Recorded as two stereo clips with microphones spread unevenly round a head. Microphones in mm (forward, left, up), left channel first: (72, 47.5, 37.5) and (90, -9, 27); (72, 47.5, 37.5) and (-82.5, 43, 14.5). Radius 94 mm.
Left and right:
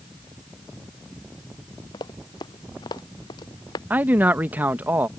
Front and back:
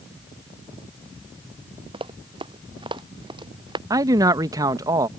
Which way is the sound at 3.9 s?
120° right.